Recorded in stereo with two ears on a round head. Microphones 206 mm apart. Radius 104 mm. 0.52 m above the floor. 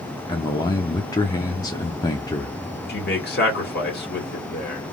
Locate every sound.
0.3 s a man speaking: 15° left (ahead or behind), 0.7 m
2.9 s a man speaking: 45° left (ahead or behind), 1.8 m